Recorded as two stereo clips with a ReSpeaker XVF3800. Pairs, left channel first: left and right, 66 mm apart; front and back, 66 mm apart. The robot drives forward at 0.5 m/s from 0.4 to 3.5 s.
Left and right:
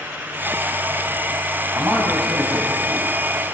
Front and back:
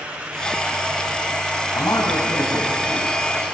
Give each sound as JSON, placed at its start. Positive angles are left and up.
{"t": 1.7, "sound": "a man speaking", "azimuth_deg": -35, "distance_m": 5.5}